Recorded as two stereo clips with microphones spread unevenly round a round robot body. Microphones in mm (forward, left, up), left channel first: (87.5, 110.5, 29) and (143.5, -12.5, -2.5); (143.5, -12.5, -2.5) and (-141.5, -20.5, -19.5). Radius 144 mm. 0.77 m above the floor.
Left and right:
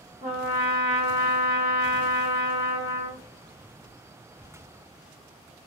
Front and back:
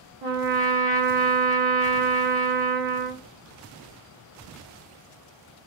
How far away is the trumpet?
About 1.0 m.